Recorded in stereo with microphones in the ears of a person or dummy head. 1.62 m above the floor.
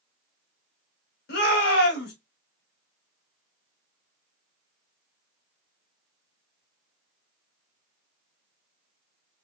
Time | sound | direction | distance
1.3 | a shout | 55° left (ahead or behind) | 1.5 m